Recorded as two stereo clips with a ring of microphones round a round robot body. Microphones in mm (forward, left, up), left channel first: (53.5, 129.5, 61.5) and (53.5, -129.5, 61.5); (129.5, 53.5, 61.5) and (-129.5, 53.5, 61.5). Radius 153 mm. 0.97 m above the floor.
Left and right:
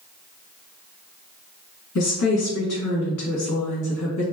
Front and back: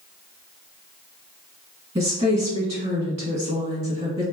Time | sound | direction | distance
1.9 | a woman speaking | 110° left | 1.6 m